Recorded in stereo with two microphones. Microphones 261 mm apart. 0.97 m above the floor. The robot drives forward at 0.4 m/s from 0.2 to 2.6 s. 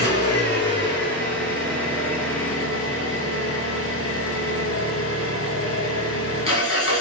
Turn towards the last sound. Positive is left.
turn(degrees=55)  # may be behind; listen again after turning